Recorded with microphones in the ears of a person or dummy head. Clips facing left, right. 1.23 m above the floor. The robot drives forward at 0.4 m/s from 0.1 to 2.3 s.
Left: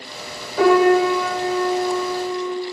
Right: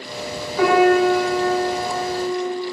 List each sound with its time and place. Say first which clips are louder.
0.6 s a piano: left 1 dB; 50° left (ahead or behind), 1.2 m; by 2.5 s 35° left (ahead or behind), 1.6 m